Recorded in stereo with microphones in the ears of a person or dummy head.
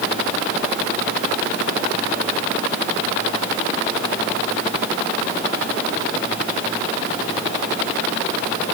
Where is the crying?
No crying in this recording.